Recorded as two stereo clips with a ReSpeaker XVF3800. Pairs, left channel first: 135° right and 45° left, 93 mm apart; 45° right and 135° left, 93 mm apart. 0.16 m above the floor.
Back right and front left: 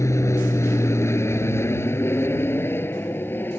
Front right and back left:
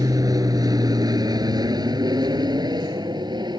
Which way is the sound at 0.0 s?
175° left.